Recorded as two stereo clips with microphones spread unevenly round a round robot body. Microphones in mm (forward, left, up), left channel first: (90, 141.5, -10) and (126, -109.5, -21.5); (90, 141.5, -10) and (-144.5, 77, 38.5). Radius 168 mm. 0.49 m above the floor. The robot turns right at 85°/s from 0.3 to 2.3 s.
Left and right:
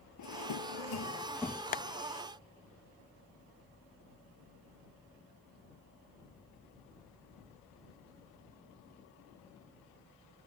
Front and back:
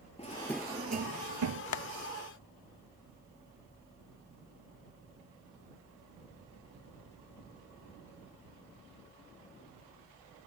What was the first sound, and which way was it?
A drawer, 85° left.